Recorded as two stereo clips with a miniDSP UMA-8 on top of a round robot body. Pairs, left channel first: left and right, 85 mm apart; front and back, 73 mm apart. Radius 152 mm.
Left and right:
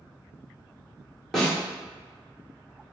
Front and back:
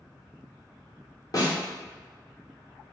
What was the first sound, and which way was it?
A snare drum, 5° left.